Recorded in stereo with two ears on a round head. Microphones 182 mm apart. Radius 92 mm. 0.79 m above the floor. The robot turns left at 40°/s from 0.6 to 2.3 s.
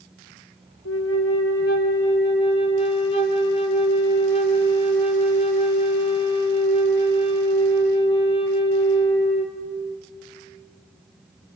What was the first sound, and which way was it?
A flute, 90° left.